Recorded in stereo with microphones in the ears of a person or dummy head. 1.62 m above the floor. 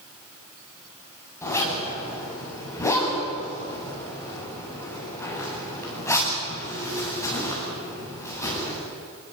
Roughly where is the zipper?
Centre.